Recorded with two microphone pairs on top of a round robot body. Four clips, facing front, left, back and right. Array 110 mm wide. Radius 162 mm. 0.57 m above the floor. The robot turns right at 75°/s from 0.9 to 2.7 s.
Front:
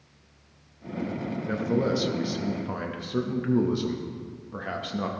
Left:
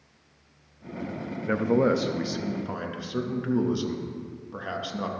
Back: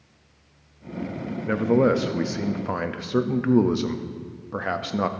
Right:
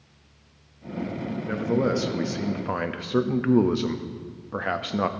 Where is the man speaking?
135° left, 0.8 m; by 5.1 s 135° right, 0.8 m.